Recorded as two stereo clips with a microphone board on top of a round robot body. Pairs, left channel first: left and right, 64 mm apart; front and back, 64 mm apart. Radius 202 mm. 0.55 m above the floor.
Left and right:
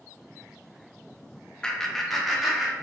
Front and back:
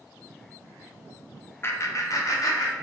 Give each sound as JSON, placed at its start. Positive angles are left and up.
{"t": 1.6, "sound": "laughter", "azimuth_deg": 20, "distance_m": 0.8}